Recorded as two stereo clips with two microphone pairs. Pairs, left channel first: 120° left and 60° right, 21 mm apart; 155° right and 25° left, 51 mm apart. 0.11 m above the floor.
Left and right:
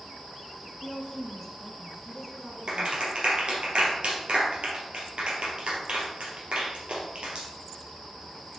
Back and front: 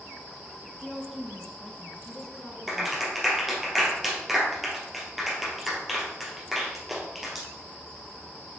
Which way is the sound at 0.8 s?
125° left.